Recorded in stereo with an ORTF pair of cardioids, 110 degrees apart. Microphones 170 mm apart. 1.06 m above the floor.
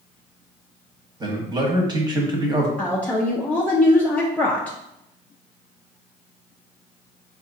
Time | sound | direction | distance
1.2 | a man speaking | 25° right | 1.1 m
2.8 | a woman speaking | 10° left | 0.5 m